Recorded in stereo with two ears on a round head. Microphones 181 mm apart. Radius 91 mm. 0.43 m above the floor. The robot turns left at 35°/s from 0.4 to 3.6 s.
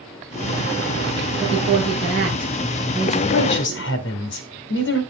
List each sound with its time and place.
1.4 s a woman speaking: 75° left (ahead or behind), 5 m; by 3.2 s 15° left (ahead or behind), 5 m
3.3 s a woman speaking: 65° left (ahead or behind), 2 m; by 5.0 s 60° left (ahead or behind), 2 m